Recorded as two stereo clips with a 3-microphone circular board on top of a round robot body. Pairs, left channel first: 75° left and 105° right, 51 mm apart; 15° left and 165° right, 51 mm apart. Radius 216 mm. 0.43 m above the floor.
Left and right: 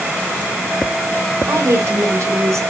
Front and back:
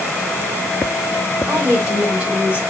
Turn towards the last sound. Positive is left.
turn(degrees=-105)